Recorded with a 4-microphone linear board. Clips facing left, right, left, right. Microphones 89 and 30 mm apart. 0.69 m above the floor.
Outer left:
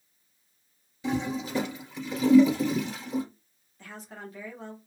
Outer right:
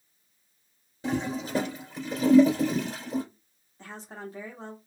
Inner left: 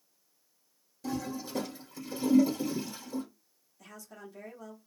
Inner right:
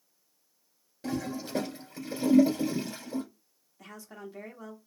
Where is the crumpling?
I don't hear crumpling.